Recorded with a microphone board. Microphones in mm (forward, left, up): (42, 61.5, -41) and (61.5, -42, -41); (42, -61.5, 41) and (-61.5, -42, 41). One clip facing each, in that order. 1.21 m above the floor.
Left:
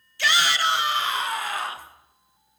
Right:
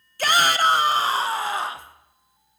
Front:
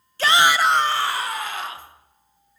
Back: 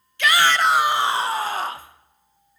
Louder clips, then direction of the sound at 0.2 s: Right 4 dB, front 1 dB; 55° right.